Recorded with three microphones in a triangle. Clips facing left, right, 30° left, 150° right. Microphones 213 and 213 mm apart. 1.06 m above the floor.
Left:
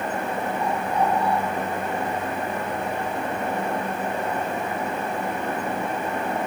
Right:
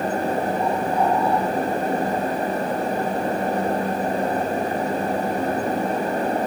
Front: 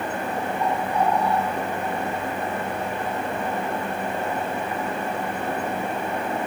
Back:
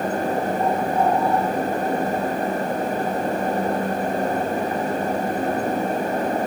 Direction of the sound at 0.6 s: 115° right.